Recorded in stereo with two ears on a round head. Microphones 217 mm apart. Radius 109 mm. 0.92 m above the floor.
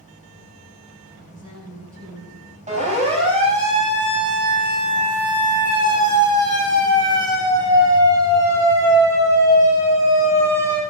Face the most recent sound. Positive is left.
turn(degrees=-10)  # may be behind; listen again after turning